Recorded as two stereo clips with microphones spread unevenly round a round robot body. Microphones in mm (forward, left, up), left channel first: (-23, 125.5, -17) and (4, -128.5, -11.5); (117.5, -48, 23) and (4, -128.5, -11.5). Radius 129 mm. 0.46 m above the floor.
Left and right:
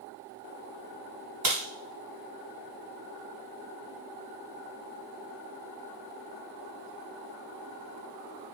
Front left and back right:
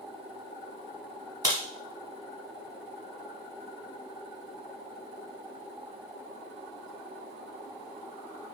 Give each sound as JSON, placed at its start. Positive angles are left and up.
{"t": 1.4, "sound": "a crack", "azimuth_deg": -100, "distance_m": 1.6}